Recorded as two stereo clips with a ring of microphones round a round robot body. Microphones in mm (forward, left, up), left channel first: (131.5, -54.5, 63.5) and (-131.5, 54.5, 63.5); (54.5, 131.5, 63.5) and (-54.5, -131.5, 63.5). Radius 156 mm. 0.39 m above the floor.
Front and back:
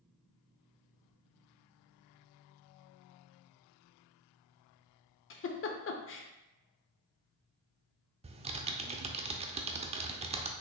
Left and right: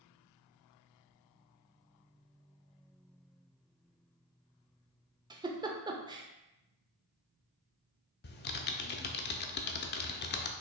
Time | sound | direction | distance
5.3 | a giggle | 45° right | 0.7 m
8.2 | typing on a keyboard | 100° left | 0.6 m